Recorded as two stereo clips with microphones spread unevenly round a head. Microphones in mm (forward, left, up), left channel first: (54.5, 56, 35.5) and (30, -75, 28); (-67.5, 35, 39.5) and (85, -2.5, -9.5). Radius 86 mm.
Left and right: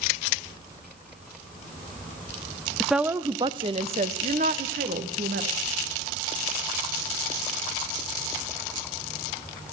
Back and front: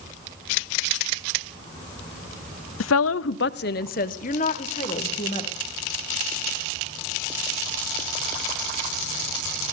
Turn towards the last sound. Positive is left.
turn(degrees=-135)